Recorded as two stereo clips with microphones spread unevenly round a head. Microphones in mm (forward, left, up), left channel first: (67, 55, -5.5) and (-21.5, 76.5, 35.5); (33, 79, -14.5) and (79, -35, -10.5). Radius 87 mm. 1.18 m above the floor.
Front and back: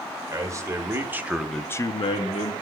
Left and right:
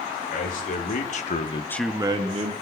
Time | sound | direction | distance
0.3 | a man speaking | 105° left | 2.5 m